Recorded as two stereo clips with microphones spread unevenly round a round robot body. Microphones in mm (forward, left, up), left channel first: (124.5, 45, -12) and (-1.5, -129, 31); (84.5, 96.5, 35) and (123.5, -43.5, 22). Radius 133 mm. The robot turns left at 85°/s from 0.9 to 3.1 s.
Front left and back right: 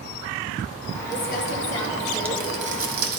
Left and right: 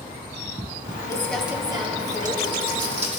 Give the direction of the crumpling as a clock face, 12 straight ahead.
11 o'clock.